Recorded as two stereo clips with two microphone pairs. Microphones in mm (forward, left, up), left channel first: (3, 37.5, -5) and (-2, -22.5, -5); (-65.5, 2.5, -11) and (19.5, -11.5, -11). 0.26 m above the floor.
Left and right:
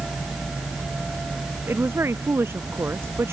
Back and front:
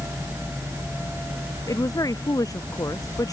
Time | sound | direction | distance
1.7 | a woman speaking | 140° right | ?